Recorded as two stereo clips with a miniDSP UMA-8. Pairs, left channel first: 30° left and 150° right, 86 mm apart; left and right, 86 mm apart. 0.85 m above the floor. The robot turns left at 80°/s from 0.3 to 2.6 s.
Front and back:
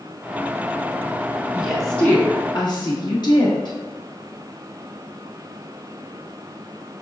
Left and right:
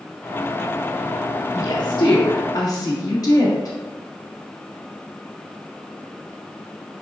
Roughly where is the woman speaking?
Behind left.